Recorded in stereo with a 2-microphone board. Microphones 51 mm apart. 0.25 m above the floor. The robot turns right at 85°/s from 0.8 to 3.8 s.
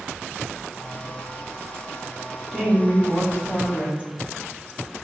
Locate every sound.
2.5 s a woman speaking: 5° right, 1.4 m; by 4.0 s 105° left, 1.4 m